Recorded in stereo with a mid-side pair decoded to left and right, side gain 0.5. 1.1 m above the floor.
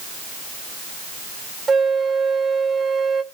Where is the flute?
35° right, 0.9 m.